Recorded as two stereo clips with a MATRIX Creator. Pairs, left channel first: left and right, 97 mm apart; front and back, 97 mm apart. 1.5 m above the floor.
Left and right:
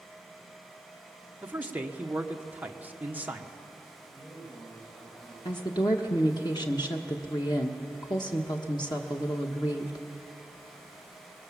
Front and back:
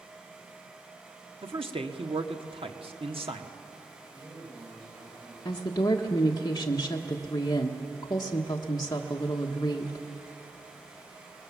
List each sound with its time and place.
1.4 s a man speaking: 165° right, 1.4 m
4.1 s a man speaking: 155° left, 9.5 m
5.5 s a woman speaking: 50° left, 1.2 m